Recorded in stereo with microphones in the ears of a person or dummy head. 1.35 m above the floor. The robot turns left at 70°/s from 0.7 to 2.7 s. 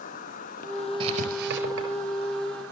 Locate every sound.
0.0 s an insect: 50° left, 0.7 m; by 2.7 s 90° right, 0.7 m
1.0 s writing: 25° right (ahead or behind), 4.5 m; by 1.9 s 75° right (ahead or behind), 4.5 m